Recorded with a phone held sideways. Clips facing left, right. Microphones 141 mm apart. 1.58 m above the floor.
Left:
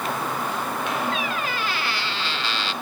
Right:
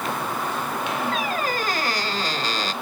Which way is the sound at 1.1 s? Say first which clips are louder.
Right 2 dB; 40° right (ahead or behind).